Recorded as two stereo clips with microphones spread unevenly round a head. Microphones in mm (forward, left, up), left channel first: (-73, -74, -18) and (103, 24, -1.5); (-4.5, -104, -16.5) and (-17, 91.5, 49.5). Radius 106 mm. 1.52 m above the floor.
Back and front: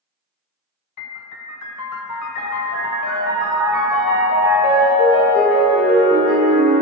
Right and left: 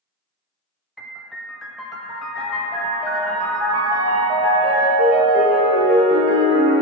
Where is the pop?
No pop in this recording.